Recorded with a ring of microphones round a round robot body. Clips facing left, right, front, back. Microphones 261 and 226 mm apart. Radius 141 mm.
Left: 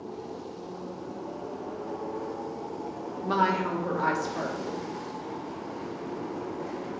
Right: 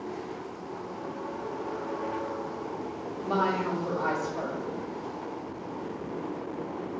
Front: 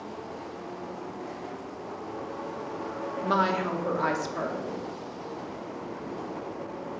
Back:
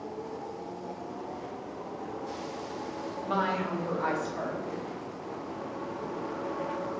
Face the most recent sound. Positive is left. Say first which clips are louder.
# even, front 4 dB
turn(degrees=30)